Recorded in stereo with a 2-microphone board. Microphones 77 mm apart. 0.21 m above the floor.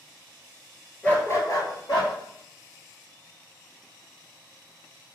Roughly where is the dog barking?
Centre.